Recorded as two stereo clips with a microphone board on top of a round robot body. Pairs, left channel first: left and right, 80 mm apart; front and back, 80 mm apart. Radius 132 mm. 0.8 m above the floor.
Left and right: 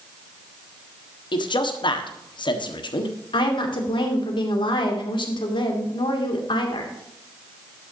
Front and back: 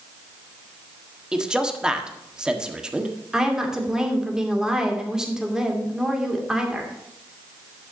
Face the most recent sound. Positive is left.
turn(degrees=95)